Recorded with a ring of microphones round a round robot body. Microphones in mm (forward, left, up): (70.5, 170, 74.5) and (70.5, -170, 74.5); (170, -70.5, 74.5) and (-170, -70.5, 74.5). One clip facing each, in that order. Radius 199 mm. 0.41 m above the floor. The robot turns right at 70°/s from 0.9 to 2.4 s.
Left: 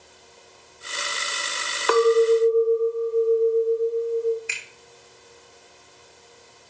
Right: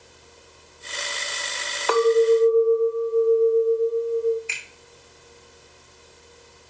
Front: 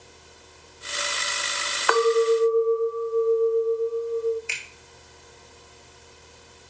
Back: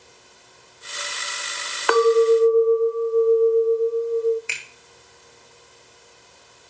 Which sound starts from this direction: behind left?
A clink, at 1.9 s.